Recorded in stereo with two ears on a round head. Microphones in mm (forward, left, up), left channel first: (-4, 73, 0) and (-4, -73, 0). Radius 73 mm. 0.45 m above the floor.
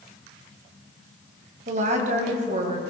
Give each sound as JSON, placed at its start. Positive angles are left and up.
{"t": 1.7, "sound": "a woman speaking", "side_deg": -50, "distance_m": 2.5}